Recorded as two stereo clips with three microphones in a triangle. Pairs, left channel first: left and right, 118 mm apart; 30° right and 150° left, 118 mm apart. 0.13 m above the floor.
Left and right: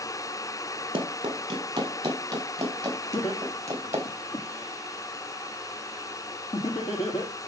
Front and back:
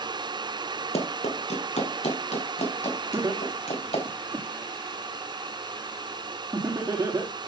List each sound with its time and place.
0.9 s running footsteps: 40° right, 4 m; by 4.0 s 25° right, 6 m
3.1 s laughter: 80° left, 4.5 m